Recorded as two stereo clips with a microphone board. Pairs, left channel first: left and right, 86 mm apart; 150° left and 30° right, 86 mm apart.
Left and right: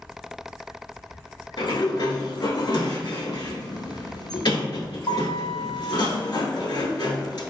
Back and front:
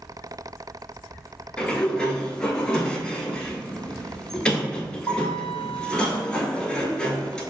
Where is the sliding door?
70° left, 0.7 m.